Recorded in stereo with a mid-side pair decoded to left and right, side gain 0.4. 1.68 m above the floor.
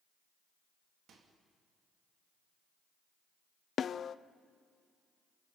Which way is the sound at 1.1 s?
70° right.